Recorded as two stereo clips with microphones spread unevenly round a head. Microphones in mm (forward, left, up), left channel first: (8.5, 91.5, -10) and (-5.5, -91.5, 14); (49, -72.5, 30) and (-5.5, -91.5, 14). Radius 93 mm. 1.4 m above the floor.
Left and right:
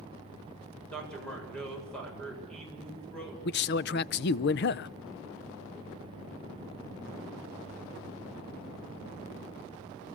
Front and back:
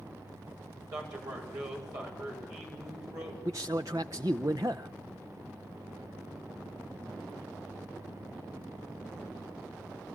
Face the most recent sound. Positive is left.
turn(degrees=120)